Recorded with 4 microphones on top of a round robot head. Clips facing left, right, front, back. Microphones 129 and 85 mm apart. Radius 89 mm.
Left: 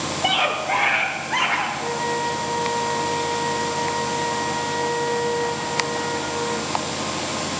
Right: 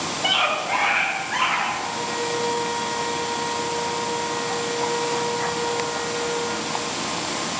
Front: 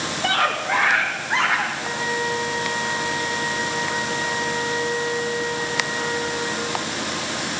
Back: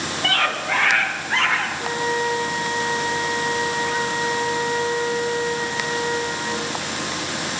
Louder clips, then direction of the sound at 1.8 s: Left 3 dB, back 2 dB; 125° left.